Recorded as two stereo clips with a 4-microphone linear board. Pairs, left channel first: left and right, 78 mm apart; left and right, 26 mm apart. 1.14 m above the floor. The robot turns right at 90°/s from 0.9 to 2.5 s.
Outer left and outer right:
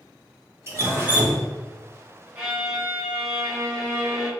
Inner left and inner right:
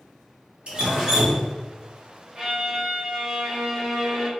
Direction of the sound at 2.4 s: 15° right (ahead or behind).